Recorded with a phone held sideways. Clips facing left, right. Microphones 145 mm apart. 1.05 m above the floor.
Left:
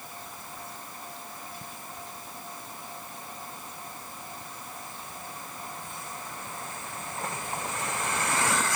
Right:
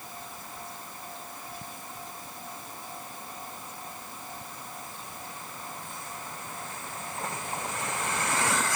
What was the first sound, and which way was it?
Only background noise.